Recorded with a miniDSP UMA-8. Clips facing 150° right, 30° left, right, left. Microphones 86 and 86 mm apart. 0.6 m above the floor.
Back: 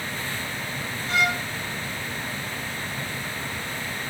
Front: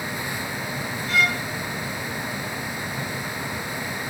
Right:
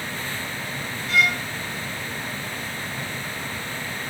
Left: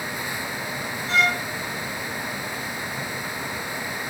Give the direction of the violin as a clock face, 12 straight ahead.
7 o'clock.